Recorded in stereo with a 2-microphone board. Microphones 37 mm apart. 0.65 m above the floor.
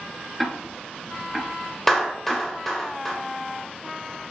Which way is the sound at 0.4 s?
Centre (ahead or behind).